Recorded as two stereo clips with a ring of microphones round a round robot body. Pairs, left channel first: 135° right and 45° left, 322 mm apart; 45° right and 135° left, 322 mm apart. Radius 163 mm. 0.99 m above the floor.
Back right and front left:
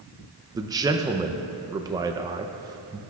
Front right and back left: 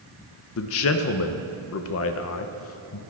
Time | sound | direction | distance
0.6 | a man speaking | 30° right | 0.5 m